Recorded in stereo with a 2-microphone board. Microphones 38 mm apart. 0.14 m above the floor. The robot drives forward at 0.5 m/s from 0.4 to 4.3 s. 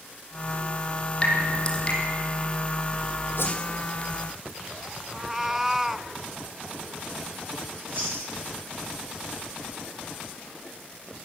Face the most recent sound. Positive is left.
turn(degrees=-55)  # may be behind; listen again after turning